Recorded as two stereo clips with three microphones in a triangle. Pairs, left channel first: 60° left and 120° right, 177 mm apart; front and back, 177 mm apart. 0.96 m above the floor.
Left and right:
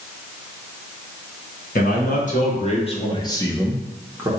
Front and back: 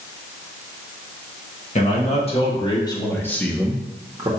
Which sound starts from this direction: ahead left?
A man speaking, at 1.8 s.